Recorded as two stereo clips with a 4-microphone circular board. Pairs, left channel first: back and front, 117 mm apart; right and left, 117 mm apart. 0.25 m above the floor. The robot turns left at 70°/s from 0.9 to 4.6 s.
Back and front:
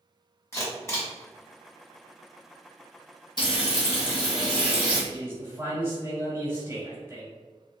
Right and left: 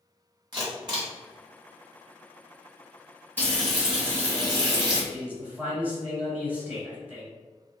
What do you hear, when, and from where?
0.5 s a camera shutter: 125° left, 1.6 m; by 1.1 s 110° left, 1.6 m
3.4 s frying: 155° right, 1.5 m; by 5.0 s 120° left, 1.5 m
5.1 s a man speaking: 35° left, 1.6 m